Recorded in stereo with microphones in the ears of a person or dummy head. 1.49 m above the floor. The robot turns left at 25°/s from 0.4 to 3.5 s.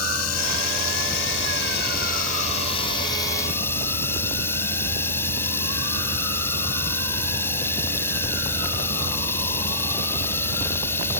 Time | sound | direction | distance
0.0 | running water | 90° left | ?